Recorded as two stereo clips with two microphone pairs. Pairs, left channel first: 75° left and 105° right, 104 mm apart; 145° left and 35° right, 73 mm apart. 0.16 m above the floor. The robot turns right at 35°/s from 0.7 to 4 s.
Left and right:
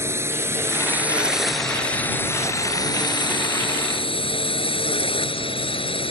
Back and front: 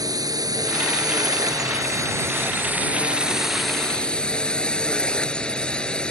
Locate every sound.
0.0 s a drone: 45° right; by 6.1 s 70° left